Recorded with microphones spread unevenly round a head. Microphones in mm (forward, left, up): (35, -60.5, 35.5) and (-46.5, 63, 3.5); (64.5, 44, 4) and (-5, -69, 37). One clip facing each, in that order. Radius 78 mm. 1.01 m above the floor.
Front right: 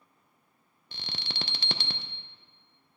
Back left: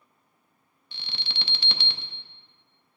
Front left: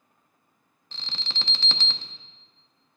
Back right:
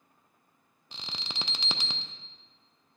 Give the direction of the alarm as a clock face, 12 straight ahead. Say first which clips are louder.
Front right 2 dB, front left 1 dB; 1 o'clock.